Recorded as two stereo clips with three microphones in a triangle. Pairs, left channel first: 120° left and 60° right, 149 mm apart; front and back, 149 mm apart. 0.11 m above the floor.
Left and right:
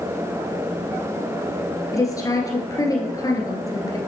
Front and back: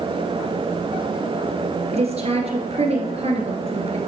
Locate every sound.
1.9 s a woman speaking: 175° left, 1.5 m